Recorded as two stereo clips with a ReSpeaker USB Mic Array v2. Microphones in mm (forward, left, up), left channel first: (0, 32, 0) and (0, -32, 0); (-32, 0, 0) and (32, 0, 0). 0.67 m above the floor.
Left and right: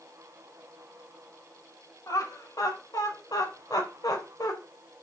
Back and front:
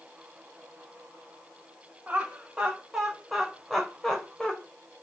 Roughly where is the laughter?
Left.